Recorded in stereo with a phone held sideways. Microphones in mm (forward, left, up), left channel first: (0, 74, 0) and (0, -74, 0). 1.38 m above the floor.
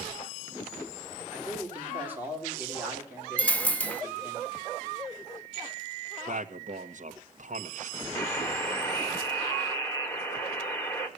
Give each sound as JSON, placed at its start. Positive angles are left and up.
{"t": 1.3, "sound": "a man speaking", "side_deg": -15, "distance_m": 4.0}
{"t": 3.4, "sound": "a dropped coin", "side_deg": 10, "distance_m": 0.8}
{"t": 6.3, "sound": "a man speaking", "side_deg": -60, "distance_m": 1.4}
{"t": 8.2, "sound": "a buzzer", "side_deg": 15, "distance_m": 1.6}